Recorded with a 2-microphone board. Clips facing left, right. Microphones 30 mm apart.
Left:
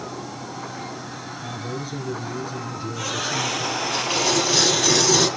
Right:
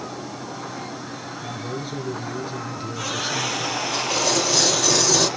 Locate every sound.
1.4 s a man speaking: 30° right (ahead or behind), 2.0 m
3.9 s tearing paper: 15° left (ahead or behind), 3 m